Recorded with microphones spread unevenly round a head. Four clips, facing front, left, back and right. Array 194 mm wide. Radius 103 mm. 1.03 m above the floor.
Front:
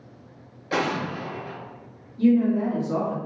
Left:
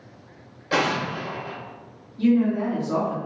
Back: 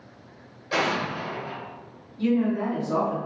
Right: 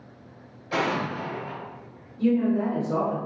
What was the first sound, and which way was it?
An explosion, 100° left.